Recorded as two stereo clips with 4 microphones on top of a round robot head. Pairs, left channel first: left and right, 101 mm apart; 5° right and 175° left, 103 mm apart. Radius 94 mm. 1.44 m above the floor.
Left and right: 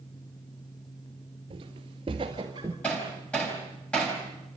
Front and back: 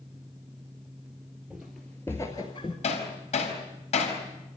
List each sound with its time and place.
1.5 s footsteps: 100° right, 1.8 m; by 2.7 s 35° right, 1.6 m
2.8 s hammering: 10° left, 4.5 m